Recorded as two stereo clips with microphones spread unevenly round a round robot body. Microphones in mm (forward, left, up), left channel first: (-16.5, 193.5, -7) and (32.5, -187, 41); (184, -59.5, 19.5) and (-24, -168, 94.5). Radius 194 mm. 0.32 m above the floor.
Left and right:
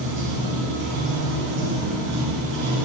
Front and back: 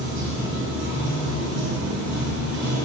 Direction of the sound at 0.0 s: 150° right.